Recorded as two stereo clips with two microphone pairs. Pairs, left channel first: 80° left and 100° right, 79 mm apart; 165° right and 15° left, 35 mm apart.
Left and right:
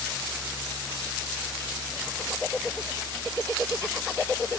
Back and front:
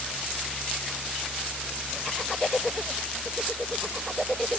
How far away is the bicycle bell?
I don't hear a bicycle bell.